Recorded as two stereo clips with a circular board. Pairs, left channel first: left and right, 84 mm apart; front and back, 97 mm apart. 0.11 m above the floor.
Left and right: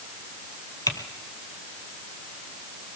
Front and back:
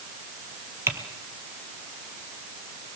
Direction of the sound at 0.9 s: 125° left.